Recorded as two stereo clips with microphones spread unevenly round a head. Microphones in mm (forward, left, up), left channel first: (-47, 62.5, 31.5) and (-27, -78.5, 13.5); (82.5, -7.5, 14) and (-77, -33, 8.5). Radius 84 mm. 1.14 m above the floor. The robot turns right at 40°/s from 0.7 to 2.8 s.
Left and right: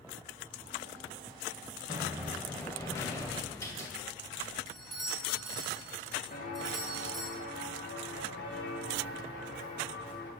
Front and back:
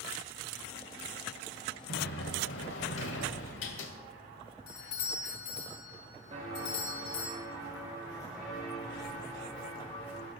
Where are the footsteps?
130° left, 4.5 m; by 10.3 s 90° left, 8.5 m.